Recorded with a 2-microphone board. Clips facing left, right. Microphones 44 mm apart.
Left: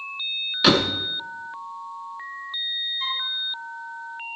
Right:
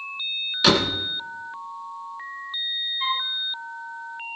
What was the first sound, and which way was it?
A door slam, 5° left (ahead or behind).